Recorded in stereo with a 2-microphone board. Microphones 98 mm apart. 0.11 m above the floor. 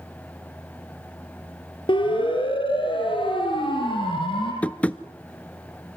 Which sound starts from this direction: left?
A siren, at 1.9 s.